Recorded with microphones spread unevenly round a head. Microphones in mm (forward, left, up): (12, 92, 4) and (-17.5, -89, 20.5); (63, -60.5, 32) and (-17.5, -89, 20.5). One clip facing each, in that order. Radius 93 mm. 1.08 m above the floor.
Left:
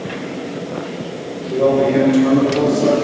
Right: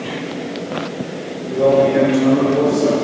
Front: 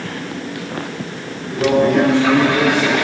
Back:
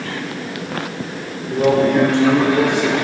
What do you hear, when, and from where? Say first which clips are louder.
1.5 s a man speaking: right 1 dB, even; 120° left, 3.5 m